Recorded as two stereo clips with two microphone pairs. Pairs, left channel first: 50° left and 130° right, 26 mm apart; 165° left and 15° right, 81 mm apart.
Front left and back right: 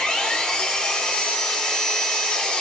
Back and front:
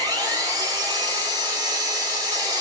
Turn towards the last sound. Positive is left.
turn(degrees=0)